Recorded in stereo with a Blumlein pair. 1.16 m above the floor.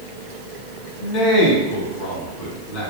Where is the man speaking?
40° left, 1.4 m.